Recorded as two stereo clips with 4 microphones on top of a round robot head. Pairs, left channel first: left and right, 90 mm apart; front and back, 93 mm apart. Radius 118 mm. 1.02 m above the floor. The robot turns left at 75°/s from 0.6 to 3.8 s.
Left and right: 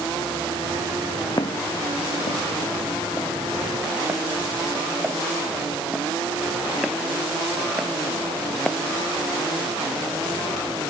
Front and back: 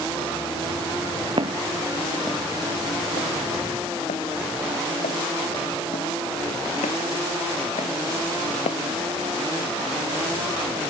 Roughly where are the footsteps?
Behind left.